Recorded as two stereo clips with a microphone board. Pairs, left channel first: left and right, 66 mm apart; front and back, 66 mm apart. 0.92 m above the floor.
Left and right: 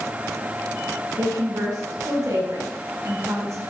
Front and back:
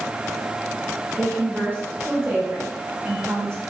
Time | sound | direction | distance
1.2 | a woman speaking | 120° right | 6 m